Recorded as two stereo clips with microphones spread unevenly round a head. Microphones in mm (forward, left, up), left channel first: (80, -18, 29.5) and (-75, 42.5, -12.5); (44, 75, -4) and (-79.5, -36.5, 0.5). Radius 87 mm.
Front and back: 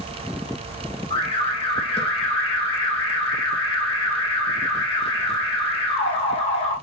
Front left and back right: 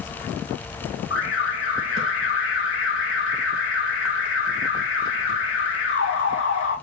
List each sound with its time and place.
1.1 s an alarm: 40° left, 3 m